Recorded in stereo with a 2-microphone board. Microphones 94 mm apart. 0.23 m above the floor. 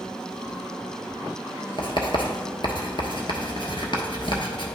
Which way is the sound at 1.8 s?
60° left (ahead or behind).